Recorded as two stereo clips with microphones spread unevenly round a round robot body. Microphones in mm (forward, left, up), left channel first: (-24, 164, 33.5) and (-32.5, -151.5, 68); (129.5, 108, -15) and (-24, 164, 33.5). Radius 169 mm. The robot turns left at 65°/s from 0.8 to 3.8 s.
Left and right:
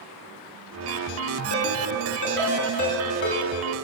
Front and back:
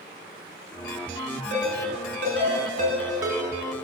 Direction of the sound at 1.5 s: 155° right.